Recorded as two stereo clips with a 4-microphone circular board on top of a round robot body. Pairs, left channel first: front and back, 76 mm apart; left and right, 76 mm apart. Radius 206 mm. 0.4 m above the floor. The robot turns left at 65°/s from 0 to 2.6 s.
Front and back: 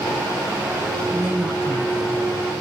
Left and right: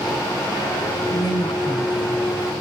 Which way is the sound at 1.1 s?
115° left.